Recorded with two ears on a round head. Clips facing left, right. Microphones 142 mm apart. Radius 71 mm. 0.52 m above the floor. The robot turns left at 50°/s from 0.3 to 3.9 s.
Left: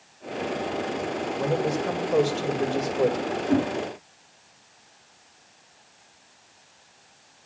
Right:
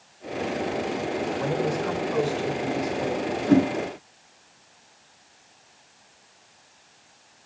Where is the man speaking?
165° left, 2 m; by 3.2 s 75° left, 2 m.